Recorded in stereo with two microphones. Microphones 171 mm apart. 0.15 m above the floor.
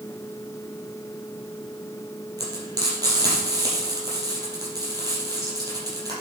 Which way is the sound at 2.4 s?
20° right (ahead or behind).